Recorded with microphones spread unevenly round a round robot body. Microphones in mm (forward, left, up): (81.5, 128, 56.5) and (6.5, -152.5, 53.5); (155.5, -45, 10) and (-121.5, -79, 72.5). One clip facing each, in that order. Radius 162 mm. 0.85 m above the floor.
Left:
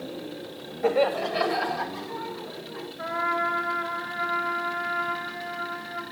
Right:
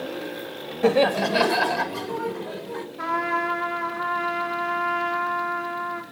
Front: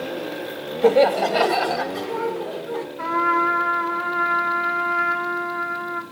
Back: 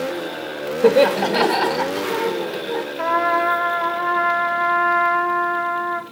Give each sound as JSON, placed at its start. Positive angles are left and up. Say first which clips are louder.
{"t": 0.8, "sound": "laughter", "louder": "right 4 dB, back 2 dB", "azimuth_deg": -95, "distance_m": 1.5}
{"t": 3.0, "sound": "a trumpet", "louder": "right 3 dB, back 2 dB", "azimuth_deg": -130, "distance_m": 4.5}